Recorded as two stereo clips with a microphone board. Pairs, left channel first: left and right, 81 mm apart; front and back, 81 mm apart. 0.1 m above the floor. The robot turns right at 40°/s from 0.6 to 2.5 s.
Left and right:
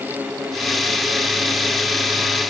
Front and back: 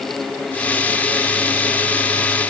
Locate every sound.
Only background noise.